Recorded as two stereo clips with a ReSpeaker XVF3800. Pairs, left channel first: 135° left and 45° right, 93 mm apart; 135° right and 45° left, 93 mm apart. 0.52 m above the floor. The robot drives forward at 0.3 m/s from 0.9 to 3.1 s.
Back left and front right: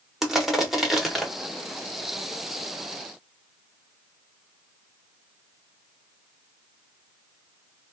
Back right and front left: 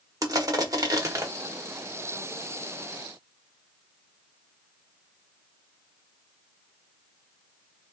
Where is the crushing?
40° left, 0.7 m; by 1.3 s 55° left, 0.6 m.